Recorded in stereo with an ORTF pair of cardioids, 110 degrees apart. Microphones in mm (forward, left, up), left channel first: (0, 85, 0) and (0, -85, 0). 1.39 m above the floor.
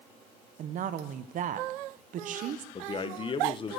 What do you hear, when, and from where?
0.6 s a woman speaking: 50° right, 0.8 m
2.8 s a man speaking: 30° left, 0.8 m